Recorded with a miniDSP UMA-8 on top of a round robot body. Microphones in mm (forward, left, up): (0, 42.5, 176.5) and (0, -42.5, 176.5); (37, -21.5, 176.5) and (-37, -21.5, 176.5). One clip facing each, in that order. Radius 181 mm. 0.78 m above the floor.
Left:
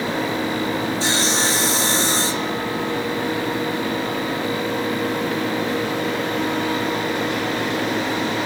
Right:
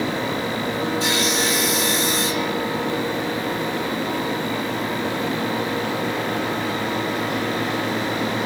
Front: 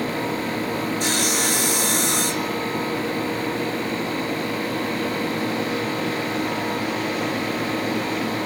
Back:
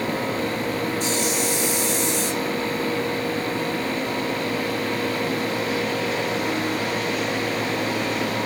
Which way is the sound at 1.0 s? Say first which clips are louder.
Even, front 1 dB; 30° left.